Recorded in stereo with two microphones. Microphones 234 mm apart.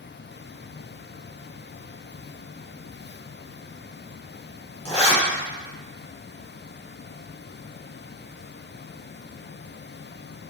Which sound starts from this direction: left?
A zipper, at 4.8 s.